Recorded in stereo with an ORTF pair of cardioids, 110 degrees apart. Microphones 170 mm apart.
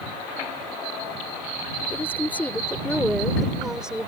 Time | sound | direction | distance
1.9 | a woman speaking | 15° left | ?